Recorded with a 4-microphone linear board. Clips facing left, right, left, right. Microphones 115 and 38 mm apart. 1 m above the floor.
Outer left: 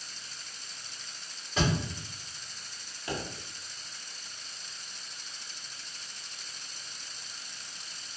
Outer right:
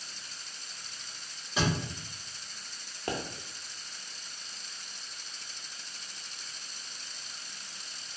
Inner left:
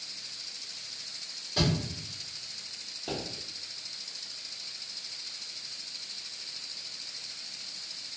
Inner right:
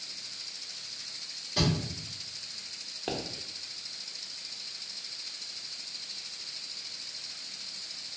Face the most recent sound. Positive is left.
turn(degrees=-45)  # may be behind; listen again after turning